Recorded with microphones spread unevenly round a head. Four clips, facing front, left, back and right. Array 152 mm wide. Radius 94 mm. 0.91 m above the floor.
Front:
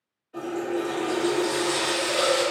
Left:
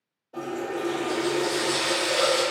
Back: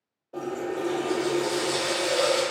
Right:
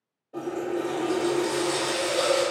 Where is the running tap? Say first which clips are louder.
Right 1 dB, front 2 dB; 160° right, 1.1 m.